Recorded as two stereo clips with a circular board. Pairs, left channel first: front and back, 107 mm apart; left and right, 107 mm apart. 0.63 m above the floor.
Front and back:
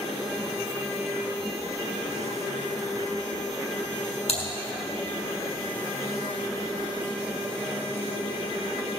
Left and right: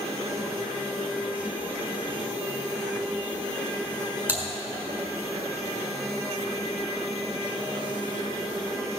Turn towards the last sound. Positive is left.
turn(degrees=-15)